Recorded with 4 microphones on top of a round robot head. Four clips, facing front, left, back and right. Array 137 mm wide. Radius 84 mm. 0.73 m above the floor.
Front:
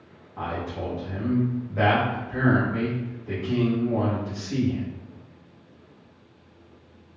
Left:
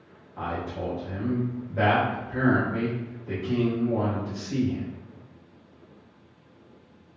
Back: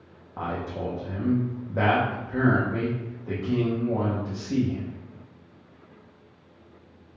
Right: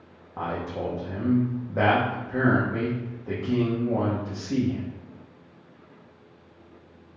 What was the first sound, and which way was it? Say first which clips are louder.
A man speaking: right 1 dB, even; 130° right.